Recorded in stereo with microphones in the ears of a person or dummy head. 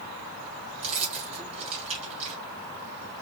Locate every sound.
0.8 s keys jangling: 40° right (ahead or behind), 2.5 m